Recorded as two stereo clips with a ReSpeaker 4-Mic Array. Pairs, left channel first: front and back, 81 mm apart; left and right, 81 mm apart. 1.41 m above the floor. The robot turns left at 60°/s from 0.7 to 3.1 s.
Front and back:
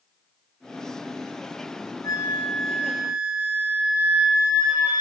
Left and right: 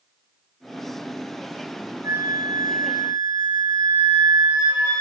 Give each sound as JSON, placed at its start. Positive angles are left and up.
{"t": 2.0, "sound": "a flute", "azimuth_deg": -45, "distance_m": 2.5}